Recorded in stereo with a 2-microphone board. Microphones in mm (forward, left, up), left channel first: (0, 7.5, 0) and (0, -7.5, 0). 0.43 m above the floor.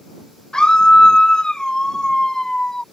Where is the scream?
50° left (ahead or behind); by 2.8 s 40° left (ahead or behind).